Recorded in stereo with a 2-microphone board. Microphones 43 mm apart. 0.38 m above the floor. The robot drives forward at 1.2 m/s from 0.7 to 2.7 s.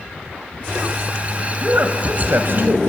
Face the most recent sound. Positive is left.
turn(degrees=-50)  # may be behind; listen again after turning